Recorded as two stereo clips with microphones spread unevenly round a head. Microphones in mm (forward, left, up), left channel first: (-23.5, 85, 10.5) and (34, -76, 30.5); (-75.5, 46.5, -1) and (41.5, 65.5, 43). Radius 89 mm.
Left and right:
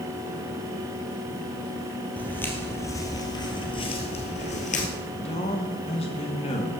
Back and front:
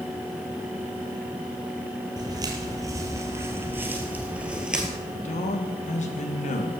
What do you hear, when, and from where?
2.2 s footsteps: 25° left, 3 m; by 4.9 s 70° left, 2.5 m
5.1 s a man speaking: 170° left, 2.5 m